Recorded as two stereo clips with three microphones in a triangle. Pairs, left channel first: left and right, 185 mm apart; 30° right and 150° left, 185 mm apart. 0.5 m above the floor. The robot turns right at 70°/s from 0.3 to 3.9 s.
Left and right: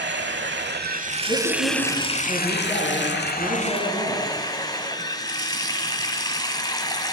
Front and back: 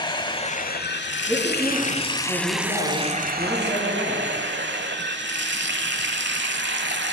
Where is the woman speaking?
45° left, 5.5 m; by 4.3 s 130° right, 5.5 m.